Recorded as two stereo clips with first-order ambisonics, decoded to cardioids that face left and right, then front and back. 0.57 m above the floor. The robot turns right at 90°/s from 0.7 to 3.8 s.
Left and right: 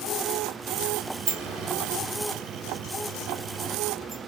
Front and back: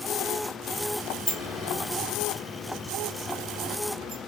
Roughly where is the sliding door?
Right.